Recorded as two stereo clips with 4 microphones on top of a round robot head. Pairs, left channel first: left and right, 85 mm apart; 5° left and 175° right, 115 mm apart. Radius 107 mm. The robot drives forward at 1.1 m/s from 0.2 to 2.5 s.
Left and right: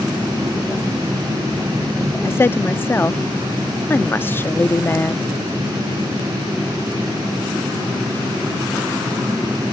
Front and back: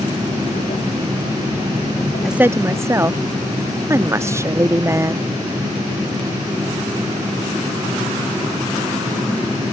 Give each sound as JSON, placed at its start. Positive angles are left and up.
{"t": 2.2, "sound": "a woman speaking", "azimuth_deg": 90}